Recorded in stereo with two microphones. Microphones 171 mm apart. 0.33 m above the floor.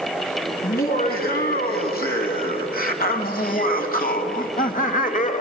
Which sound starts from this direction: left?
Laughter, at 0.6 s.